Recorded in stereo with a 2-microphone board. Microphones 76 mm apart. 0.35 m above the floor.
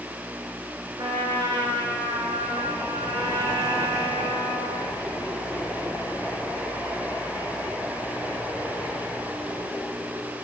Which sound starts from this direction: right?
A trumpet, at 1.0 s.